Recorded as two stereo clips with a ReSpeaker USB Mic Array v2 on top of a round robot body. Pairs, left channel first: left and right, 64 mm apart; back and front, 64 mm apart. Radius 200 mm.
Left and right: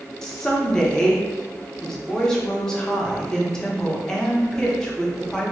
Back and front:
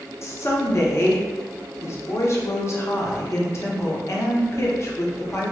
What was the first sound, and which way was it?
A woman speaking, 165° left.